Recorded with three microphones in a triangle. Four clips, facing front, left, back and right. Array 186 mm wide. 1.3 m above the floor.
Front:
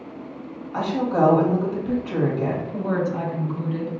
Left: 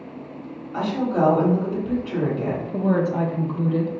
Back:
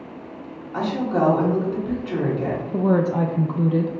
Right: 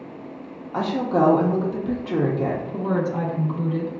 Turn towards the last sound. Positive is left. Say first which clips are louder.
# left 6 dB, back 5 dB
turn(degrees=145)